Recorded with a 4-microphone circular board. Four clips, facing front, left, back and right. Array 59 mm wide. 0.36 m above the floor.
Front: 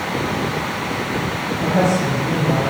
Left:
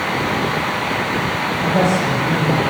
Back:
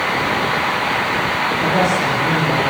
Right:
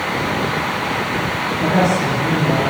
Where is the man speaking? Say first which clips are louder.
Right 1 dB, front 1 dB; 125° right, 7 m.